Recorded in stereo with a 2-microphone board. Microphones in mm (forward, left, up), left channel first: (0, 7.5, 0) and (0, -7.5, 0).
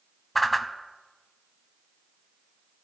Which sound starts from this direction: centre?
A whoosh, at 0.3 s.